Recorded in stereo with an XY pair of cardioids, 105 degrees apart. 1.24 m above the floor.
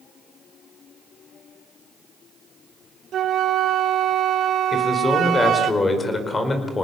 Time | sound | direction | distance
3.1 | a flute | 65° right | 0.9 m
4.7 | a man speaking | 25° left | 4.5 m